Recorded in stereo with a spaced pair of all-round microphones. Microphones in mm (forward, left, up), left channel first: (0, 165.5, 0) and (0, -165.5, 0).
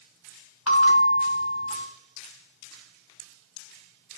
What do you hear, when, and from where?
0.7 s a bell: 45° left (ahead or behind), 2.5 m